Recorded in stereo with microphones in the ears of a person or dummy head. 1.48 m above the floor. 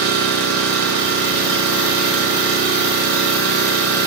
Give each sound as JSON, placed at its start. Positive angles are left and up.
{"t": 0.0, "sound": "an engine running", "side_deg": -55, "distance_m": 0.9}